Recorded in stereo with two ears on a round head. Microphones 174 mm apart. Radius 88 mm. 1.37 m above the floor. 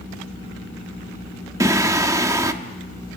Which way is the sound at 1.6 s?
15° right (ahead or behind).